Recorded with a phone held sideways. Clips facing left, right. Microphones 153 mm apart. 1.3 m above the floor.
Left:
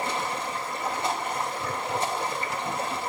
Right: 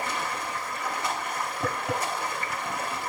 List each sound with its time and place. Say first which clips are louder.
0.0 s running water: left 2 dB; 30° left (ahead or behind), 2 m
1.6 s tapping: right 1 dB; 70° right (ahead or behind), 5.5 m